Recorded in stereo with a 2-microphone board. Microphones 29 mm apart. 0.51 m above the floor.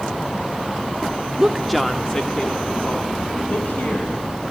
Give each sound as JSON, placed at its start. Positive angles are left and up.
{"t": 1.4, "sound": "a woman speaking", "side_deg": -25, "distance_m": 1.1}